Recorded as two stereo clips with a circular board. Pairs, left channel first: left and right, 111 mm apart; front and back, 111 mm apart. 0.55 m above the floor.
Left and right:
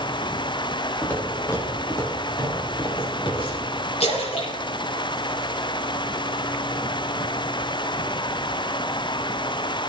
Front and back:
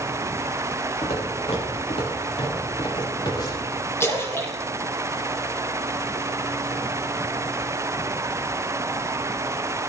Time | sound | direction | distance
1.0 | footsteps | 20° left | 4 m
4.0 | a splash | 65° left | 4.5 m